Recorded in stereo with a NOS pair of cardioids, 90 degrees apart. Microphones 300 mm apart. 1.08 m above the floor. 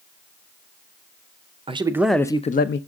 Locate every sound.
1.7 s a man speaking: 20° right, 0.7 m; by 2.8 s 40° left, 0.5 m